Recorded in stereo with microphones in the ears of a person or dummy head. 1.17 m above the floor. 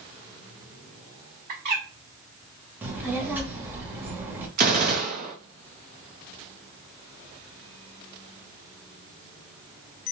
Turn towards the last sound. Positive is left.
turn(degrees=-50)  # may be behind; listen again after turning